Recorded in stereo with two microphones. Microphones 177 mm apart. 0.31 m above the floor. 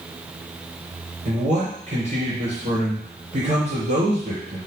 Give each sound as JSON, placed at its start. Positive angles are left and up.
{"t": 1.2, "sound": "a man speaking", "side_deg": -40, "distance_m": 4.0}